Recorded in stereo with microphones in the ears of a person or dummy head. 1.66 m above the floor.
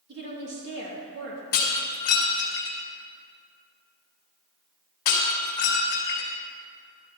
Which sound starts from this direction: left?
Breaking glass, at 1.5 s.